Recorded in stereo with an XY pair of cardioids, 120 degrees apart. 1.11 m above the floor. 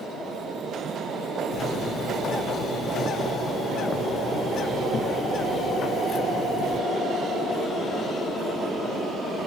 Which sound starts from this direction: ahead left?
A bird, at 1.5 s.